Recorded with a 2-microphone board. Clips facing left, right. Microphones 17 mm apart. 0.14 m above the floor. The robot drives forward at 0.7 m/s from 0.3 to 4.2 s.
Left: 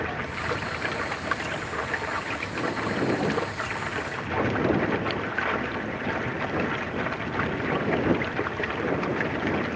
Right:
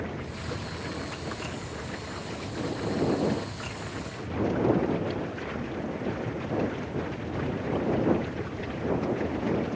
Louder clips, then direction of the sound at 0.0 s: Left 6 dB; 70° left (ahead or behind).